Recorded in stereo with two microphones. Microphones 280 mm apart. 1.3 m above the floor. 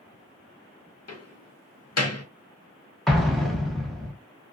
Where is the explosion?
Centre (ahead or behind), 0.6 m.